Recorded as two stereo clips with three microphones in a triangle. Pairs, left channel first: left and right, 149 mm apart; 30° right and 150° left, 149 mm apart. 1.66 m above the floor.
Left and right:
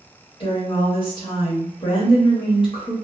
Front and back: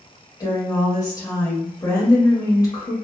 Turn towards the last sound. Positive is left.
turn(degrees=35)